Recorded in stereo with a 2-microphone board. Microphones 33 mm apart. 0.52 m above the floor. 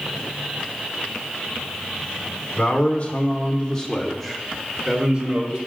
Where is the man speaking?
50° left (ahead or behind), 1.1 m; by 5.6 s 35° right (ahead or behind), 1.1 m.